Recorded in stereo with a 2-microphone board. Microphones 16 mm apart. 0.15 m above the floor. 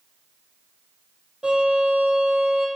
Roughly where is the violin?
Right.